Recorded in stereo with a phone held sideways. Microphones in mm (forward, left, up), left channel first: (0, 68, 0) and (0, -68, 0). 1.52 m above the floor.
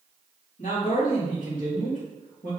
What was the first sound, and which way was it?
A man speaking, 80° left.